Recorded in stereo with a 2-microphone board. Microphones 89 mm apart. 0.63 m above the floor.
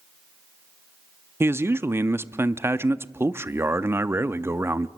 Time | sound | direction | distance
1.4 | a man speaking | 25° right (ahead or behind) | 0.6 m